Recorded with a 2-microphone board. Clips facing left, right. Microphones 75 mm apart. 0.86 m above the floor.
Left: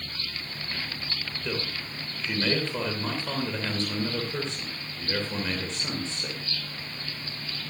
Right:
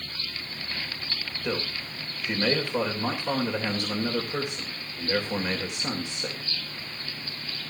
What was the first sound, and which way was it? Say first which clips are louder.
A man speaking: right 3 dB; 15° right (ahead or behind).